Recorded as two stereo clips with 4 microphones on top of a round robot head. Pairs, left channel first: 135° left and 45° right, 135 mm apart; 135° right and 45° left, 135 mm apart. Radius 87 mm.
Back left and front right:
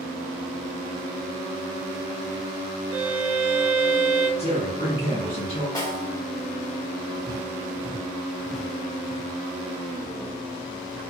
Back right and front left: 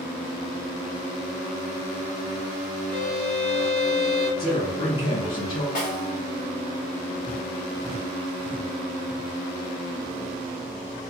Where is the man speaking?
Straight behind, 1.6 m.